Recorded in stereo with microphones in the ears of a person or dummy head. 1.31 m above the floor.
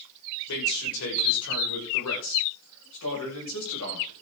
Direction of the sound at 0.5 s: 75° left (ahead or behind).